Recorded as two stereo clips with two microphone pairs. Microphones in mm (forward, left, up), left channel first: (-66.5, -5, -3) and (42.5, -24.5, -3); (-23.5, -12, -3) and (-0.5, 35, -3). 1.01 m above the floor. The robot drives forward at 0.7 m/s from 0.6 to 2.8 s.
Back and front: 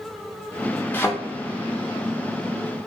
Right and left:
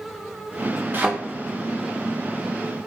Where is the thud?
105° left, 0.8 m; by 1.1 s 115° left, 0.8 m.